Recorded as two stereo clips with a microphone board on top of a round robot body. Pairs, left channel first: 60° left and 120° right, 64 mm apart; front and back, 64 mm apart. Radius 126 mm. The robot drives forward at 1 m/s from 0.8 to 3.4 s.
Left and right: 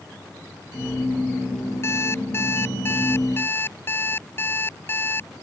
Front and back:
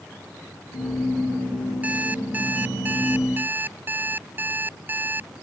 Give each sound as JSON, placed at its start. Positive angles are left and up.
{"t": 1.8, "sound": "an alarm clock", "azimuth_deg": 110}